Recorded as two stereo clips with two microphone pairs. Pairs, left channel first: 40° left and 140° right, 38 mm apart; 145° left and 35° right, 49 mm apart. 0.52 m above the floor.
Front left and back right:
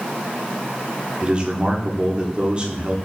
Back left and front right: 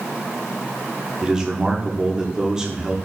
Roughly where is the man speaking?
Right.